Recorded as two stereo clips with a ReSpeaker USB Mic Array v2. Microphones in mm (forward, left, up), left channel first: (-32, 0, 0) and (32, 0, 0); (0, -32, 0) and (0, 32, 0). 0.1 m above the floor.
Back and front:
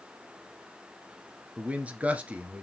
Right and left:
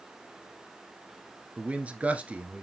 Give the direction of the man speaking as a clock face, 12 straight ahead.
11 o'clock.